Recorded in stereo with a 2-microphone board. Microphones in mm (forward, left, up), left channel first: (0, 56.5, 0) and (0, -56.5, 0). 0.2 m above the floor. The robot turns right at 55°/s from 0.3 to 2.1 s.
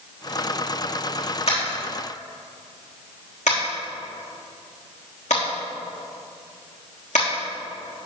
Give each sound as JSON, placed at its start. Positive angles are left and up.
{"t": 1.5, "sound": "tapping", "side_deg": 60, "distance_m": 4.5}